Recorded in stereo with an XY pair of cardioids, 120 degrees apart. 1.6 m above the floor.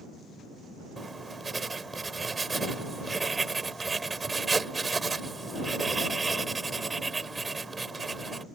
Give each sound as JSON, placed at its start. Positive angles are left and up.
{"t": 1.0, "sound": "writing", "azimuth_deg": -20}